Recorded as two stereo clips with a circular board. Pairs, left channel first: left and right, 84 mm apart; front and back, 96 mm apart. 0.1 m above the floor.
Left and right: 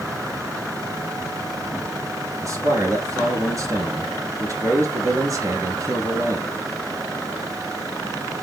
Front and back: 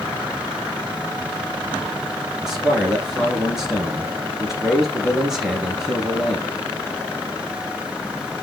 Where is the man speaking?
95° right, 1.4 m.